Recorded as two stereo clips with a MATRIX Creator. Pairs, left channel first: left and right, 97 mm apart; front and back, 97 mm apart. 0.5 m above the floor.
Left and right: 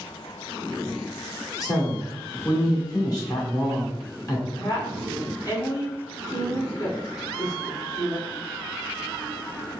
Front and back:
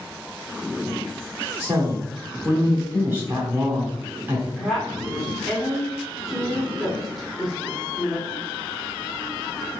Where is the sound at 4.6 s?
90° left, 1.6 m.